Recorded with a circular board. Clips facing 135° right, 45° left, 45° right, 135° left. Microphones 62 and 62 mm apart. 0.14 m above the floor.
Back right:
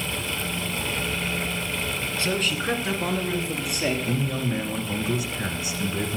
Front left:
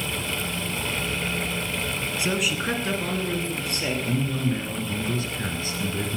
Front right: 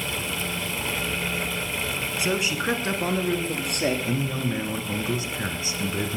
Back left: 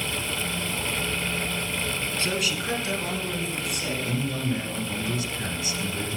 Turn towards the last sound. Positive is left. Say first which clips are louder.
# front left 1 dB, front right 1 dB
turn(degrees=-65)